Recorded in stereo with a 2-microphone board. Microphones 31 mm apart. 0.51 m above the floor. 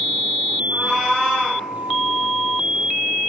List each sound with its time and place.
0.7 s a cat meowing: 5° right (ahead or behind), 3.5 m